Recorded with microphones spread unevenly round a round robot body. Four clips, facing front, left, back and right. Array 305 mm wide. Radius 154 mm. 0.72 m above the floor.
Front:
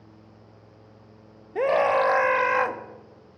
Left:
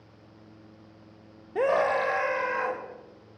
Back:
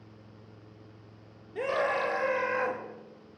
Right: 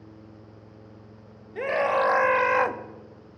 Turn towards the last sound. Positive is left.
turn(degrees=-65)